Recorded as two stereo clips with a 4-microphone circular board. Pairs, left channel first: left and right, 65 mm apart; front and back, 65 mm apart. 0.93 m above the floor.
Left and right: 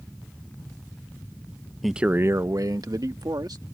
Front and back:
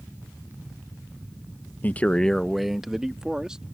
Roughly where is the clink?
I don't hear a clink.